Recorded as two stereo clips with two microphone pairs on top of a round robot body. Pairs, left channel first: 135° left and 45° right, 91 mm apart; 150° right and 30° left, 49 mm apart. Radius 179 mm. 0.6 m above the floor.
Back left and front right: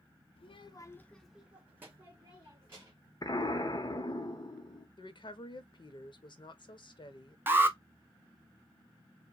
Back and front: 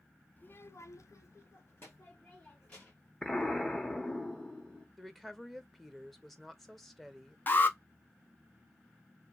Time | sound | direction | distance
0.4 | a child speaking | 155° left | 0.6 m
3.2 | an explosion | 145° left | 1.0 m
5.0 | a woman speaking | 130° left | 0.8 m
7.5 | an alarm | 105° right | 0.7 m